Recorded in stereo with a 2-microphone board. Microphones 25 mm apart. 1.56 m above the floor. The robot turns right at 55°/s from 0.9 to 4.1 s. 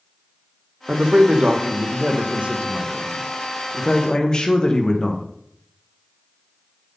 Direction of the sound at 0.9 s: 150° right.